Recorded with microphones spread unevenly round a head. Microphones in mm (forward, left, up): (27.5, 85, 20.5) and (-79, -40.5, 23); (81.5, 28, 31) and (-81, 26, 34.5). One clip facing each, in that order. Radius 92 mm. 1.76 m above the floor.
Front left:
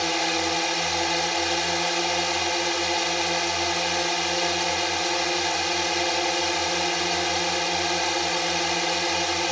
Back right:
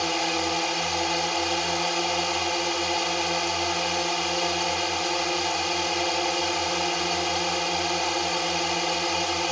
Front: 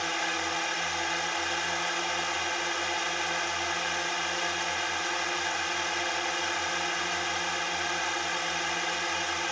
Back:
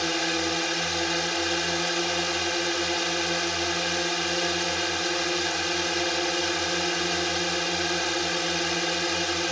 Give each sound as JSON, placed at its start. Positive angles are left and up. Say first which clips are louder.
{"t": 0.0, "sound": "a drone", "louder": "front left 1 dB, back 6 dB", "azimuth_deg": 135}